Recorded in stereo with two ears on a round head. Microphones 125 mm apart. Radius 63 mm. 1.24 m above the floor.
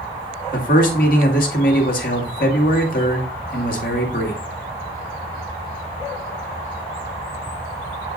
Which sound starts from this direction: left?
A man speaking, at 0.5 s.